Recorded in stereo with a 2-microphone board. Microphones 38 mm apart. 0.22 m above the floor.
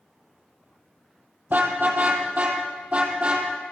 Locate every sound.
1.5 s a car horn: 50° right (ahead or behind), 3.5 m; by 3.5 s 35° right (ahead or behind), 4 m